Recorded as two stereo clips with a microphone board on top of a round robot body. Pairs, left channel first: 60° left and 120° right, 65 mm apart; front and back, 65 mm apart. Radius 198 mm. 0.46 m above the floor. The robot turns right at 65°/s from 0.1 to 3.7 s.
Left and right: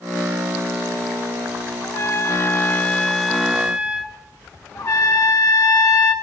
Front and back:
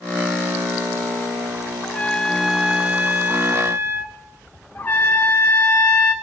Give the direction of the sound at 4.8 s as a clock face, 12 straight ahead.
10 o'clock.